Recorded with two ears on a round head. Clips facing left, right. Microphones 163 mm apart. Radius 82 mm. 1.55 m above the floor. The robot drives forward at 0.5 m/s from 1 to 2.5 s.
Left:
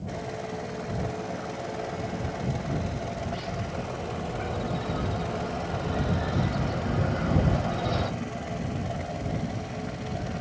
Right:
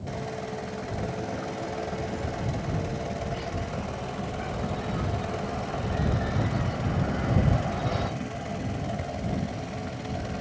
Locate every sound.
1.6 s a bird: 30° left (ahead or behind), 2 m; by 8.1 s 35° left (ahead or behind), 1.9 m